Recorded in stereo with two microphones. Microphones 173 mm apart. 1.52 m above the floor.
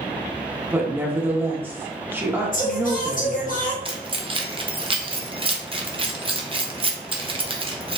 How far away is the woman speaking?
About 0.8 m.